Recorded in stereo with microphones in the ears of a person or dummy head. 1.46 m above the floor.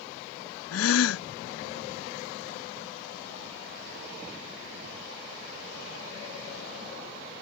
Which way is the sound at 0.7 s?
80° left.